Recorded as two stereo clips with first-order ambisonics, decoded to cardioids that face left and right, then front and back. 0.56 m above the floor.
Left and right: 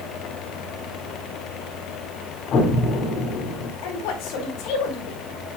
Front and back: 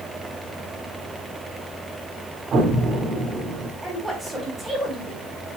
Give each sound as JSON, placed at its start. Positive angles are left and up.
{"t": 2.5, "sound": "an explosion", "azimuth_deg": 125, "distance_m": 1.9}
{"t": 3.8, "sound": "a woman speaking", "azimuth_deg": 90, "distance_m": 4.0}